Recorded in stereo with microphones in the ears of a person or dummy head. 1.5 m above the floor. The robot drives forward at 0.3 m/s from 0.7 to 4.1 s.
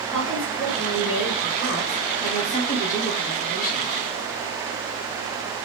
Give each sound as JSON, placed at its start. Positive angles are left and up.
{"t": 0.1, "sound": "a woman speaking", "side_deg": 25, "distance_m": 1.6}